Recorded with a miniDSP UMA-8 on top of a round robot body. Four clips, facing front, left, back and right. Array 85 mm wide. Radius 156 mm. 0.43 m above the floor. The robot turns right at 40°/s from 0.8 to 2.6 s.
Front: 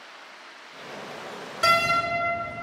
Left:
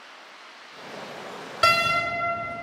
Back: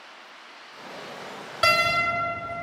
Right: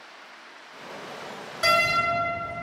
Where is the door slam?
125° left, 1.1 m; by 2.0 s 140° left, 1.1 m.